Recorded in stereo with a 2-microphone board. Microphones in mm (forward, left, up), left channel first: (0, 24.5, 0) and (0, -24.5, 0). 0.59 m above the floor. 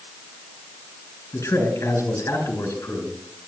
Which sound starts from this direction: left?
A man speaking, at 1.3 s.